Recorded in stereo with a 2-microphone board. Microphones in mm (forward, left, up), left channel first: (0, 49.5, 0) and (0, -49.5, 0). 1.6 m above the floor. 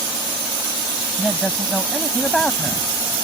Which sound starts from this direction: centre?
A man speaking, at 1.2 s.